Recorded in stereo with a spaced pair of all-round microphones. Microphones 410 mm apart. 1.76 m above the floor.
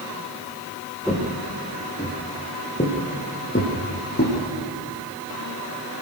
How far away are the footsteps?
About 3.5 m.